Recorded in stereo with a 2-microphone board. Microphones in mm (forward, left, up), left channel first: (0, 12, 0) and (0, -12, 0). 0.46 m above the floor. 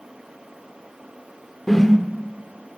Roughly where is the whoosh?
Centre.